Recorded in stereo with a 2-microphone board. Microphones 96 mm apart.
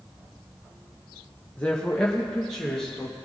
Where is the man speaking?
15° left (ahead or behind), 0.9 m; by 3.1 s 5° left (ahead or behind), 1.7 m.